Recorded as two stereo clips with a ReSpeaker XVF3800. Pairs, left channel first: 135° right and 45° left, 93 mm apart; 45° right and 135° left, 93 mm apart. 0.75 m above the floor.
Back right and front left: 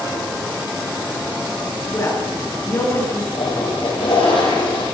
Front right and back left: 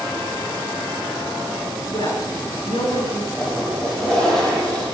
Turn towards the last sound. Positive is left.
turn(degrees=-125)